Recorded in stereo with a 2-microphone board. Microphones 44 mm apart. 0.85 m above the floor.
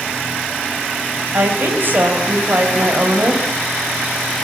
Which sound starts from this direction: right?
A woman speaking, at 1.3 s.